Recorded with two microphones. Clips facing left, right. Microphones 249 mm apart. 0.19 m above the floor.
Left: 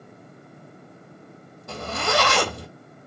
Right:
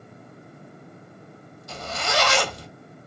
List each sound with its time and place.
1.7 s a zipper: 65° left (ahead or behind), 1.4 m